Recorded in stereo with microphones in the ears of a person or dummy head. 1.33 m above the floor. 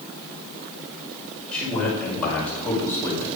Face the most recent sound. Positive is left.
turn(degrees=15)  # may be behind; listen again after turning